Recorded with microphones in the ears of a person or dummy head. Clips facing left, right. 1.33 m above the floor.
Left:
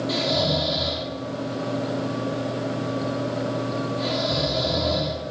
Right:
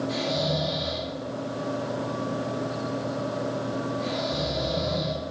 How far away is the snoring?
About 6 m.